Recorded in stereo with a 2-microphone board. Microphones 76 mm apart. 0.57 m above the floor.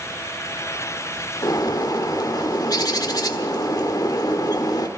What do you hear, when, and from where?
1.4 s a bird: 60° left (ahead or behind), 1.2 m